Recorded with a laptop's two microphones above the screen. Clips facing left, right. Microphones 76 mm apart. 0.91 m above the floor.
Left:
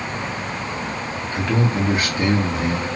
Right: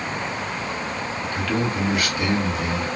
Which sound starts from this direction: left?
A man speaking, at 1.3 s.